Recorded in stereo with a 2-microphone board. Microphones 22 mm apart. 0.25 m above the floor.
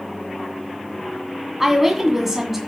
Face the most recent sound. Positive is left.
turn(degrees=-10)  # may be behind; listen again after turning